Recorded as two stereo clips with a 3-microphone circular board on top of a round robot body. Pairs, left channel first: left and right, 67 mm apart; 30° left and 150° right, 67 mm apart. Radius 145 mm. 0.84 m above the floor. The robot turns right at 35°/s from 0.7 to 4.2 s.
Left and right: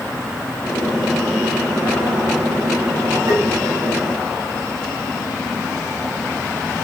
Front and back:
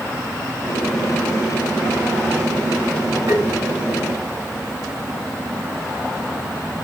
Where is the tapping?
120° right, 4 m; by 3.4 s 115° right, 4 m.